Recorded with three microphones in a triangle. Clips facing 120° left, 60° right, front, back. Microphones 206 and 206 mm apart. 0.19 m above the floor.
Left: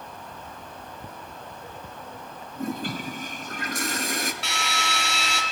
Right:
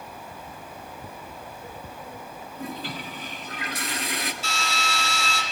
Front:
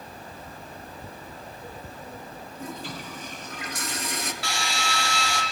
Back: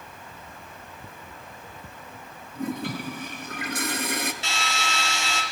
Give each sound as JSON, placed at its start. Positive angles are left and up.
{"t": 2.5, "sound": "a toilet flushing", "azimuth_deg": 160, "distance_m": 2.0}
{"t": 4.4, "sound": "a drill", "azimuth_deg": 110, "distance_m": 4.5}